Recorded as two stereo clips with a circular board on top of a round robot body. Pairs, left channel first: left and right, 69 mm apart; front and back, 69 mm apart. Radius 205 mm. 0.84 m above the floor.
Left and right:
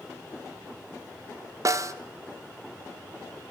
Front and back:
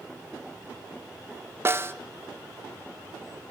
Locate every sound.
1.6 s a snare drum: 130° right, 1.8 m